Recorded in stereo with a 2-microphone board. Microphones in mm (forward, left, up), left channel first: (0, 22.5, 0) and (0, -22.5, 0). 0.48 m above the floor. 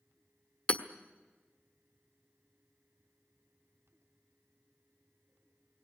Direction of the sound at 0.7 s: 20° left (ahead or behind).